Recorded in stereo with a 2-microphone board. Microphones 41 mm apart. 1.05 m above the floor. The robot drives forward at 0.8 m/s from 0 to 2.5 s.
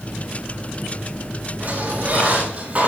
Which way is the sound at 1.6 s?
40° right (ahead or behind).